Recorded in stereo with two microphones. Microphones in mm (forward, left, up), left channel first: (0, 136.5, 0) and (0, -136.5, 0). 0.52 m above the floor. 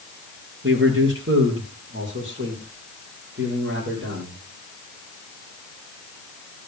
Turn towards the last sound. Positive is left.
turn(degrees=-40)  # may be behind; listen again after turning